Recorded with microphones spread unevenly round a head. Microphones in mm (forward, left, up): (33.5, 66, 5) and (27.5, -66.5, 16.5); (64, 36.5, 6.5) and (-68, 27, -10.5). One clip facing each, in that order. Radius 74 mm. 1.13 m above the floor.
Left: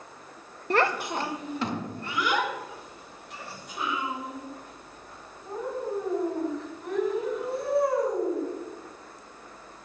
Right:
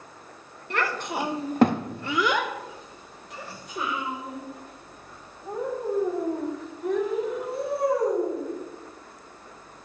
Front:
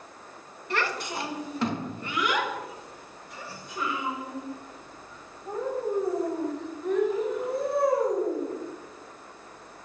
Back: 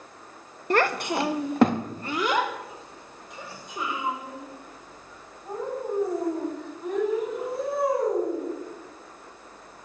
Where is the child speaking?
145° left, 0.6 m; by 8.4 s 95° right, 6 m.